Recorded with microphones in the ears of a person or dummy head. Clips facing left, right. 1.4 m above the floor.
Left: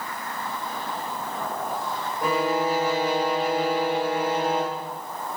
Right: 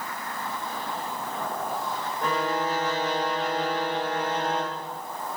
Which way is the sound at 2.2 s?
15° left (ahead or behind).